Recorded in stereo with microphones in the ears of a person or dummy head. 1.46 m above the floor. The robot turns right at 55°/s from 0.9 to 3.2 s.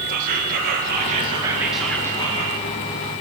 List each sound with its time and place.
0.1 s whispering: 50° right, 1.5 m; by 2.6 s 45° left, 1.5 m